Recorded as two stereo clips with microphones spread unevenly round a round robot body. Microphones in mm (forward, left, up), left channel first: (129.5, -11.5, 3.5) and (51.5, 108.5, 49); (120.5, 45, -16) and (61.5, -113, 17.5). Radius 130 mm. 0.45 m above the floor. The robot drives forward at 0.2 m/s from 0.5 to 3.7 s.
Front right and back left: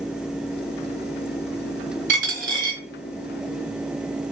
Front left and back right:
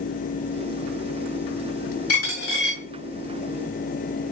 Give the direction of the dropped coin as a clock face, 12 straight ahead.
8 o'clock.